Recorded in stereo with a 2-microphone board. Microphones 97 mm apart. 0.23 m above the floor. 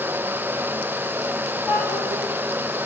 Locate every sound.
1.7 s a child speaking: 15° right (ahead or behind), 9.5 m